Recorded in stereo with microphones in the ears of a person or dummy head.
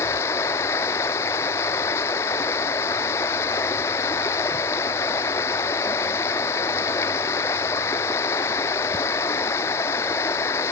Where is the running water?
10° left (ahead or behind).